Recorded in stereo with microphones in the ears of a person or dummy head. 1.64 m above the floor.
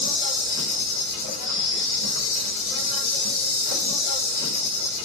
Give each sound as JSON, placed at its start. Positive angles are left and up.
{"t": 0.0, "sound": "an insect", "side_deg": 65, "distance_m": 2.5}